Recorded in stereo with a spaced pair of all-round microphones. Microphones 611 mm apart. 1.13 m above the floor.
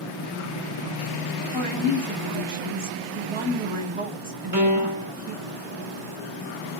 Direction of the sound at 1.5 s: 55° right (ahead or behind).